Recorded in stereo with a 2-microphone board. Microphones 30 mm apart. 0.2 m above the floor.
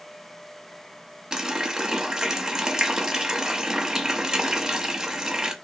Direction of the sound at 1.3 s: 20° right (ahead or behind).